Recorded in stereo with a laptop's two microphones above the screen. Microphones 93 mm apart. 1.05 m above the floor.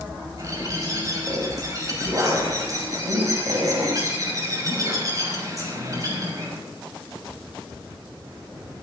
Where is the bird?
35° right (ahead or behind), 6 m.